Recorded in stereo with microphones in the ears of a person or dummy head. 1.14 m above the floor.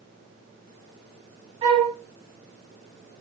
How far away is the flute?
About 0.8 m.